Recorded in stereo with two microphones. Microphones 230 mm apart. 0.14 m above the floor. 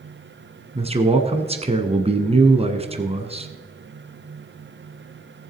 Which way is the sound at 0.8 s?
25° right (ahead or behind).